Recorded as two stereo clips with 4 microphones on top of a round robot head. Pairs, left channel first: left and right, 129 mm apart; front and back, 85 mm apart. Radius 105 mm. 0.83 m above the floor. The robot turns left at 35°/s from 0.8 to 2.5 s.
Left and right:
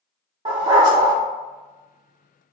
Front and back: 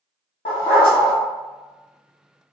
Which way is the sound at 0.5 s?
25° right.